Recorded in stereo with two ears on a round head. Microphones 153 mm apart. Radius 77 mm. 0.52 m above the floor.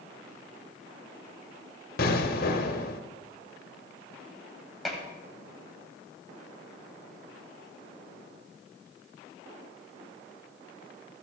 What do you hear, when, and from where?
2.0 s an explosion: 60° left (ahead or behind), 1.1 m
4.8 s dishes clattering: centre (ahead or behind), 1.7 m